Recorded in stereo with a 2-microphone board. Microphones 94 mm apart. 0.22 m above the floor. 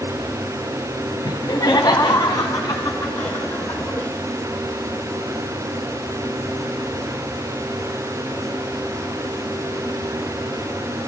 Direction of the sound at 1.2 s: 40° left (ahead or behind).